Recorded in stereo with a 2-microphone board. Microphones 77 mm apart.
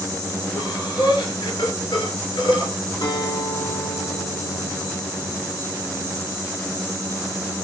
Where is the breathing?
80° left, 2.5 m.